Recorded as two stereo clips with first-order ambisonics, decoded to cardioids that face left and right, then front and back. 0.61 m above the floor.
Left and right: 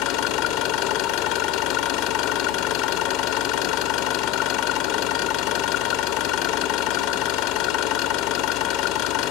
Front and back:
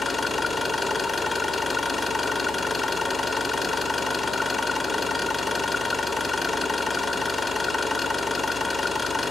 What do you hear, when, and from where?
0.0 s an engine running: 75° left, 1.0 m